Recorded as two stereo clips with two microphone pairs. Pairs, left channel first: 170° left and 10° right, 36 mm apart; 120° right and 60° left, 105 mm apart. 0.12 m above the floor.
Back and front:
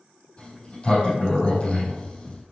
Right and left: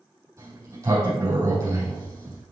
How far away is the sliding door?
About 4.5 m.